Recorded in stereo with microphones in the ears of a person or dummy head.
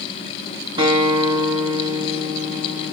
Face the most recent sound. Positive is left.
turn(degrees=-25)  # may be behind; listen again after turning